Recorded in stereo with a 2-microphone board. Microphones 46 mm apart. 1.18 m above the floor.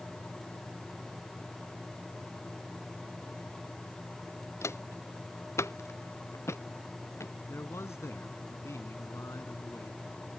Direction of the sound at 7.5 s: 75° left (ahead or behind).